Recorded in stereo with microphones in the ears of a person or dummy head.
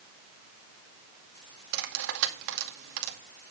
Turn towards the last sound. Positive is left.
turn(degrees=-70)  # may be behind; listen again after turning